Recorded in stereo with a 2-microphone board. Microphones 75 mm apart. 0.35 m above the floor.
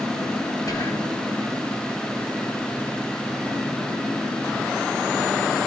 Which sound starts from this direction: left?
Whispering, at 0.7 s.